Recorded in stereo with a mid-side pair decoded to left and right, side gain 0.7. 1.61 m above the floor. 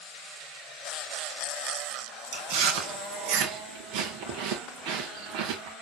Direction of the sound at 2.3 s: 65° right.